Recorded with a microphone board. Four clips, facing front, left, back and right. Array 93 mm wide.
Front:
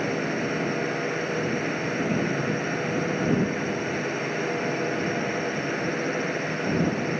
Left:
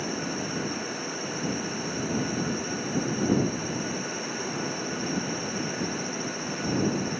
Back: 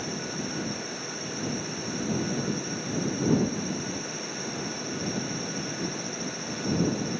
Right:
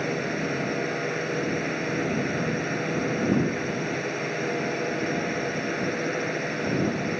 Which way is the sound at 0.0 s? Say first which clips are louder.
Right 4 dB, front 7 dB; 45° right.